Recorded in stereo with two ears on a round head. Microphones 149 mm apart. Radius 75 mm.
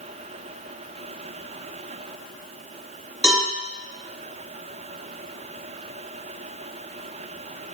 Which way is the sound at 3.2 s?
Centre (ahead or behind).